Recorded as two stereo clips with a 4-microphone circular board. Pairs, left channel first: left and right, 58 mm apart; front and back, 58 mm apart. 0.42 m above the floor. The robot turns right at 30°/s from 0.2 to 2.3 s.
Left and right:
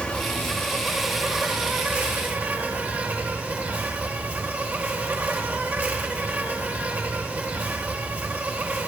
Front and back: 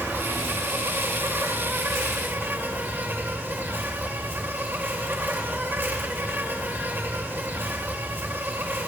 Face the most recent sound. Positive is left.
turn(degrees=-150)